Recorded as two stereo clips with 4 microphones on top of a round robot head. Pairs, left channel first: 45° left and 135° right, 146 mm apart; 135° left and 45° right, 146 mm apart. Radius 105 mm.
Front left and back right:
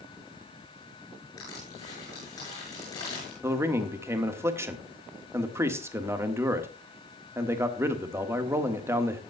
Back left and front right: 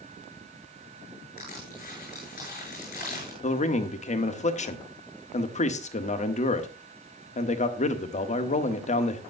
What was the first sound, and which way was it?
Crushing, 110° left.